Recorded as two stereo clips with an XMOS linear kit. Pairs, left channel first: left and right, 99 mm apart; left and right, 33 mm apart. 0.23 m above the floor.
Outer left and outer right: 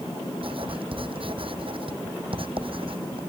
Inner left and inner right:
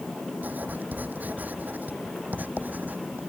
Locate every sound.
0.4 s writing: 60° right (ahead or behind)